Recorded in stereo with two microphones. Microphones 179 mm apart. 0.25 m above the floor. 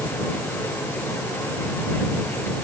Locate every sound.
Only background noise.